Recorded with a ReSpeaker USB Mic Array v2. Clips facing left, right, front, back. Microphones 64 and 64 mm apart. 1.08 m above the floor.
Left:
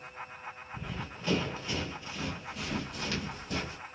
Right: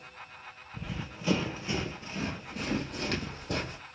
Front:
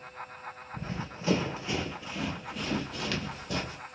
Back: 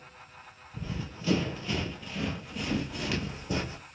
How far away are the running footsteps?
About 1.2 m.